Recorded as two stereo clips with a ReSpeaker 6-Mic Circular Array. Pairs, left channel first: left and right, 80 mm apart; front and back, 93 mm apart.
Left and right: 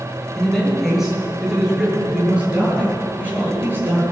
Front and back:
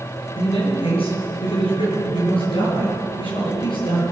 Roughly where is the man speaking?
Ahead.